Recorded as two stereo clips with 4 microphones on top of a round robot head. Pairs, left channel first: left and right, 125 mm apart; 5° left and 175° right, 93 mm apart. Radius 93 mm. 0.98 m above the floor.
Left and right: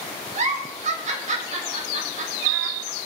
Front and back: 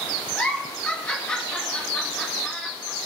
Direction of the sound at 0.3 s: 70° right.